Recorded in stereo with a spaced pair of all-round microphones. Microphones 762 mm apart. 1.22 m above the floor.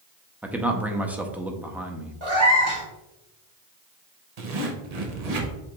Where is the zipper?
55° right (ahead or behind), 0.8 m.